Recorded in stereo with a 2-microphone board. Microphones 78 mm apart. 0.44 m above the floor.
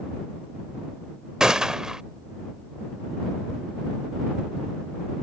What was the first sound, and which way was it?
A gunshot, 10° right (ahead or behind).